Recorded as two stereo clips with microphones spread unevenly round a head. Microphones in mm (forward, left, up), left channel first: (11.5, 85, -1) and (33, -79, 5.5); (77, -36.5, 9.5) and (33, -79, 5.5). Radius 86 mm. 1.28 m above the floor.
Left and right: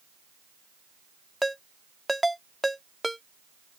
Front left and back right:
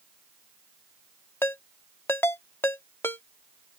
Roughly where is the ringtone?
Ahead.